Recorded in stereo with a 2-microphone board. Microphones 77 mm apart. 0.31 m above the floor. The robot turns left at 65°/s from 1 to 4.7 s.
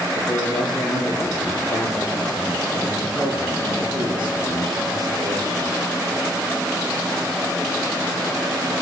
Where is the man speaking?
125° left, 7 m; by 5.7 s 120° right, 7 m.